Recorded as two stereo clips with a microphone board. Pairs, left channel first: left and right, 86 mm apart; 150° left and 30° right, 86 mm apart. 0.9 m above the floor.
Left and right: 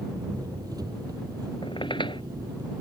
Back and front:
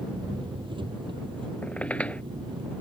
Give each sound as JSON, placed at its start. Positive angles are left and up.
{"t": 0.0, "sound": "an engine running", "azimuth_deg": -50}
{"t": 1.6, "sound": "a squeak", "azimuth_deg": 75}